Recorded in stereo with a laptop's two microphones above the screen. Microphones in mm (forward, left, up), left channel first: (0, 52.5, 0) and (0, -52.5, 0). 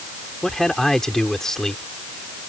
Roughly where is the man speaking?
Centre.